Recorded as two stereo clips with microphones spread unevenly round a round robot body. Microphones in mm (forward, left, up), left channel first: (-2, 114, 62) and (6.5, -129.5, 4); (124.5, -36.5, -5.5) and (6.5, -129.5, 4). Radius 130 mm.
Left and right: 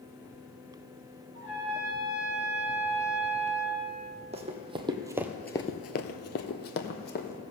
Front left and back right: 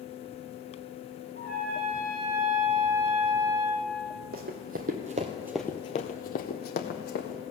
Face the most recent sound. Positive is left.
turn(degrees=45)